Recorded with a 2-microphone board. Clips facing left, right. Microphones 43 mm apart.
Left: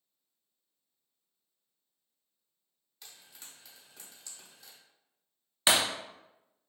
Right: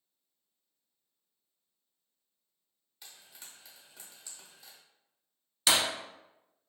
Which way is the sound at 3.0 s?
5° right (ahead or behind).